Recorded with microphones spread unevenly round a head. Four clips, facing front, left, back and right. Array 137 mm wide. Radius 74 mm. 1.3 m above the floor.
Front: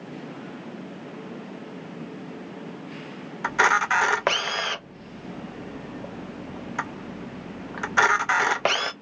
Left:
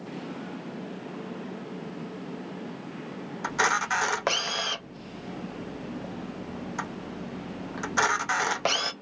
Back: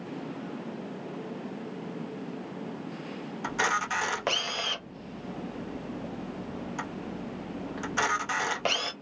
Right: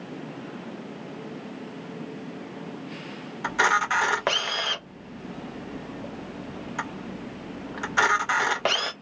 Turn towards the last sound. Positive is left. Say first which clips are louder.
# right 3 dB, front 8 dB
turn(degrees=-5)